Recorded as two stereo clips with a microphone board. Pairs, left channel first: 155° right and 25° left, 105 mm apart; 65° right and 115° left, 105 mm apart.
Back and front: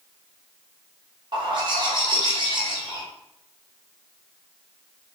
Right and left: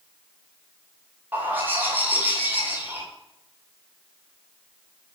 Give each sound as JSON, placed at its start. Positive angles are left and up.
{"t": 1.3, "sound": "a bird", "azimuth_deg": 45, "distance_m": 1.6}